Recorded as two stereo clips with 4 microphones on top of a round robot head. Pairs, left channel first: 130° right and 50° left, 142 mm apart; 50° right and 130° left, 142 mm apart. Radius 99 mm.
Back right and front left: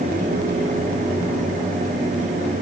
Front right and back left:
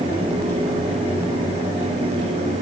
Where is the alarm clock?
I don't hear an alarm clock.